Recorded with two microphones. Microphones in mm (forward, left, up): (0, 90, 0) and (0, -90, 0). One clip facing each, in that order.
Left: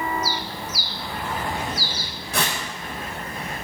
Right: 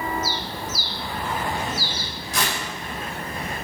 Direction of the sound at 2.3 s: 60° left (ahead or behind).